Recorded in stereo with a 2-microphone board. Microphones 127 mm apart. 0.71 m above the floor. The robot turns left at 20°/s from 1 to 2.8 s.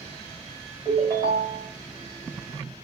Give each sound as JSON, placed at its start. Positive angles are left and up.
{"t": 0.8, "sound": "a ringtone", "side_deg": -35, "distance_m": 2.5}